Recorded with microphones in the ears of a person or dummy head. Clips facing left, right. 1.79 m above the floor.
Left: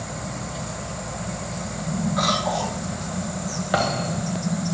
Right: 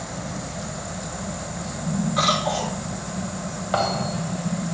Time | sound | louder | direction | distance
2.2 | a cough | even | 35° right (ahead or behind) | 5.5 m
3.7 | a thud | even | 20° left (ahead or behind) | 3 m